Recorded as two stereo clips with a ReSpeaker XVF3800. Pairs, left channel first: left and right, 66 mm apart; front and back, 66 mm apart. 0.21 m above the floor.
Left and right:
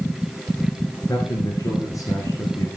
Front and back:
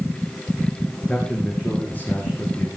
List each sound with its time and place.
1.1 s a man speaking: 75° left, 2.5 m; by 2.8 s 55° left, 3.5 m